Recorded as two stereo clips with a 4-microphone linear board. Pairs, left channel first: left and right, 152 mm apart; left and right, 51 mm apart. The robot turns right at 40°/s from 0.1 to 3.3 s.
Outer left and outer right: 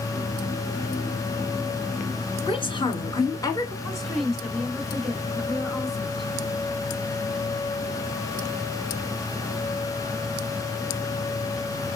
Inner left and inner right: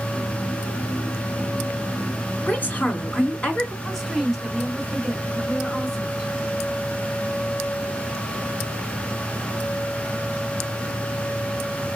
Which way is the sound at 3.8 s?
Centre (ahead or behind).